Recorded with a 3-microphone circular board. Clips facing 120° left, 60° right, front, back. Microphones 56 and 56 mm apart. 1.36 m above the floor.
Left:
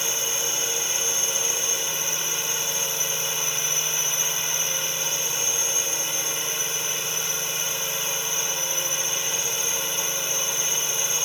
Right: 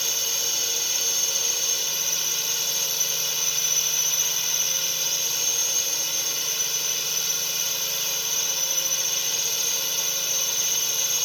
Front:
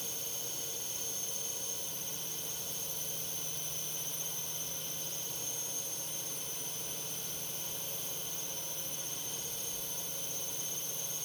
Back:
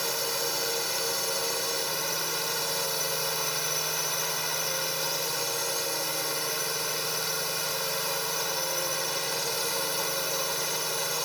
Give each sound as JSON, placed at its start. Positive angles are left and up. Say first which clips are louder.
{"t": 0.0, "sound": "a drone", "louder": "left 3 dB, back 15 dB", "azimuth_deg": -170}